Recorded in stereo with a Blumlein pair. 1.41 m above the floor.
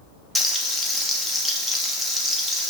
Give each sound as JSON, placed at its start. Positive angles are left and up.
{"t": 0.3, "sound": "frying", "azimuth_deg": 5, "distance_m": 0.7}